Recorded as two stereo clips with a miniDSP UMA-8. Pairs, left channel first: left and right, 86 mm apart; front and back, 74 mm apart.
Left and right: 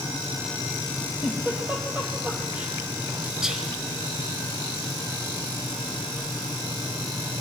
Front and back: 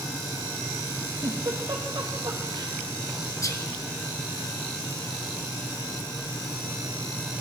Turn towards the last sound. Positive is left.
turn(degrees=-10)